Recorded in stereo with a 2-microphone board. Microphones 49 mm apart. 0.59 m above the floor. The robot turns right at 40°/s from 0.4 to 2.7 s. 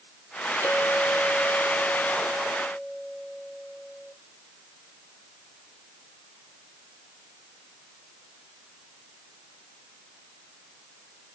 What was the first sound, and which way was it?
A clink, 130° right.